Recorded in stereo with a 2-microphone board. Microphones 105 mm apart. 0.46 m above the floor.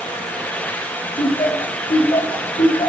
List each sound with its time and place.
1.2 s laughter: 70° left (ahead or behind), 2.5 m; by 2.9 s 55° left (ahead or behind), 1.8 m